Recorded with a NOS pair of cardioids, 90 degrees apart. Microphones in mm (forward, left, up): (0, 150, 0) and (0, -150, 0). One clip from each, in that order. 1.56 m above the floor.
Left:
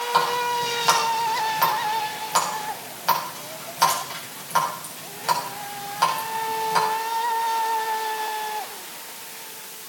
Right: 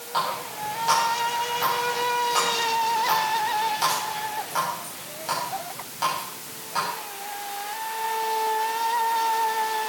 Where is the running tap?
50° left, 7 m.